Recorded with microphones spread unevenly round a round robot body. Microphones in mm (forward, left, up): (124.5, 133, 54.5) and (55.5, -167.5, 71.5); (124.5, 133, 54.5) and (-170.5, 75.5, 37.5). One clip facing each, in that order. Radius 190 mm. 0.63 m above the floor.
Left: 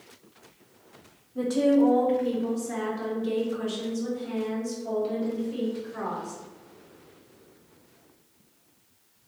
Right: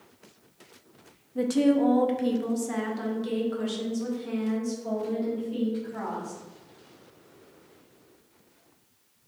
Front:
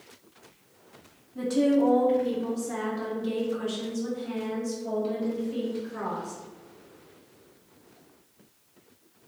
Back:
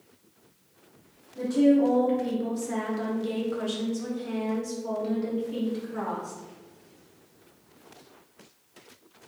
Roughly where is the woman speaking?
Ahead right.